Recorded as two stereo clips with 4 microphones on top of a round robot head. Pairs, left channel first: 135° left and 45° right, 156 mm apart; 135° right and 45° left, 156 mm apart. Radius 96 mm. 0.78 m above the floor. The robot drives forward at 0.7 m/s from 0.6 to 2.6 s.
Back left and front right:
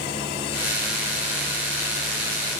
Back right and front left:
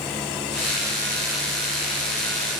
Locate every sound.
Only background noise.